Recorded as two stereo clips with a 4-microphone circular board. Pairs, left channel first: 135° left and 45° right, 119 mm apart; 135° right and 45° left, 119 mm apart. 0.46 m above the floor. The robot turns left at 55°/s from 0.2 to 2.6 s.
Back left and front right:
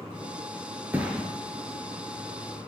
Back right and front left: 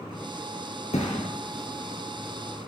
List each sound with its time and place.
0.9 s a thud: 115° right, 2.5 m; by 1.3 s 135° right, 2.5 m